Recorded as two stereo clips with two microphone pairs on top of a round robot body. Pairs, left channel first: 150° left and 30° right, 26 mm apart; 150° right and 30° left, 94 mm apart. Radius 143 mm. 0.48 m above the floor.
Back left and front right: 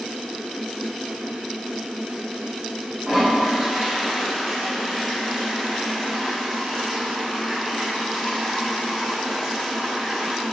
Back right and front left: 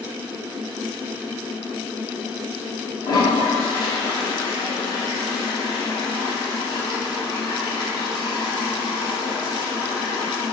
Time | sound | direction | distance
3.0 | a toilet flushing | 115° right | 2.5 m